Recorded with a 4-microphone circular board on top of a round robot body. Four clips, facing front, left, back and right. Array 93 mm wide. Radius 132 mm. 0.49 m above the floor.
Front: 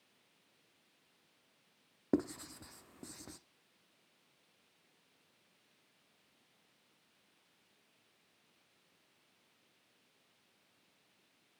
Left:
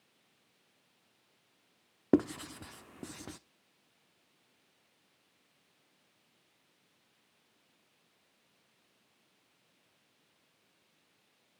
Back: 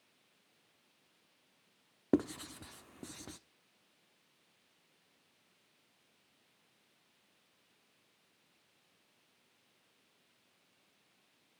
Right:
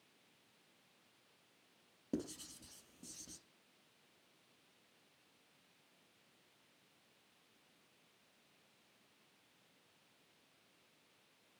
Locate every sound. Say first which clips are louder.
2.1 s writing: left 15 dB, back 3 dB; 100° left, 0.8 m